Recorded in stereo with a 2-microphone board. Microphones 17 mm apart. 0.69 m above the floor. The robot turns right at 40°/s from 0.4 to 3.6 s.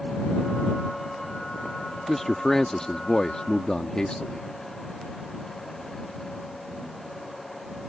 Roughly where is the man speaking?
Ahead.